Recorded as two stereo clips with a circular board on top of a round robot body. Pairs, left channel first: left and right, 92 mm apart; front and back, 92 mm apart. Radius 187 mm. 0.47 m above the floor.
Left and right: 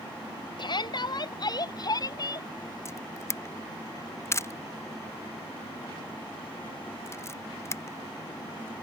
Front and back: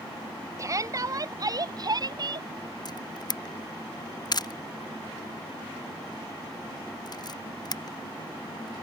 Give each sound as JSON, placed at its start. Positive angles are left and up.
{"t": 0.6, "sound": "a shout", "azimuth_deg": 125}
{"t": 2.9, "sound": "a camera shutter", "azimuth_deg": 35}